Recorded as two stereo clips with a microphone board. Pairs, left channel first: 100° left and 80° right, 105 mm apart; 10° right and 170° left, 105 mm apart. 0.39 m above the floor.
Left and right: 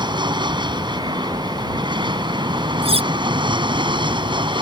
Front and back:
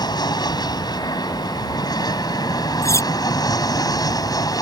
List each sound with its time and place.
0.0 s an aircraft: 50° right; by 4.6 s 55° right
2.8 s cutlery clinking: 70° right